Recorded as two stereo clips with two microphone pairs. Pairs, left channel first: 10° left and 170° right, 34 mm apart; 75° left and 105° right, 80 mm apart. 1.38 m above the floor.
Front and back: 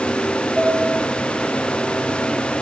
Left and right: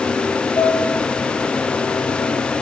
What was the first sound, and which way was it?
A piano, 110° left.